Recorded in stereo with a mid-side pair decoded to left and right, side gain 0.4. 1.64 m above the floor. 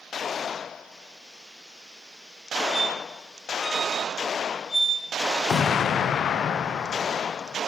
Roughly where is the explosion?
Ahead left.